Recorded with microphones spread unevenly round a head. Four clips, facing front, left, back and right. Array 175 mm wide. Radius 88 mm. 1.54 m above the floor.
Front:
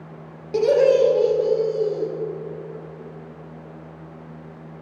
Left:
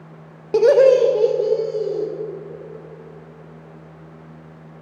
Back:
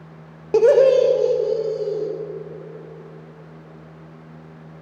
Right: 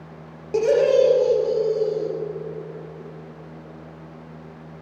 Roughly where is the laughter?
Behind left.